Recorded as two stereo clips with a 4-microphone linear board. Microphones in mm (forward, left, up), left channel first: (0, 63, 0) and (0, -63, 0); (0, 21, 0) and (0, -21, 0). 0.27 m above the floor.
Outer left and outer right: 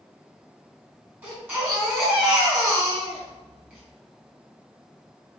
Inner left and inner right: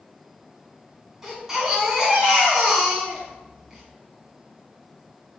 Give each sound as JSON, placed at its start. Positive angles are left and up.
{"t": 1.2, "sound": "a baby crying", "side_deg": -15, "distance_m": 2.0}